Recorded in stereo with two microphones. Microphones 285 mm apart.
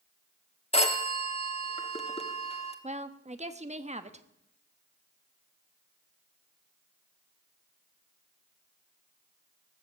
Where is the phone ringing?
20° left (ahead or behind), 1.3 m.